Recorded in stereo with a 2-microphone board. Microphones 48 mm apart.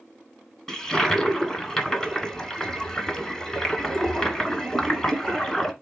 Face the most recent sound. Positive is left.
turn(degrees=10)  # may be behind; listen again after turning